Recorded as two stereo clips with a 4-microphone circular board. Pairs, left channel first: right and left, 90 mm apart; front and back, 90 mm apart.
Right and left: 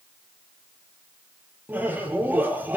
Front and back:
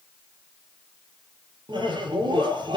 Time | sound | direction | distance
1.7 | laughter | 160° left | 4 m